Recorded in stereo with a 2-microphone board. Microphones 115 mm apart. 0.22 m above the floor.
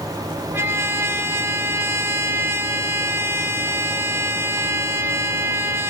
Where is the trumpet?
20° right (ahead or behind), 0.5 m.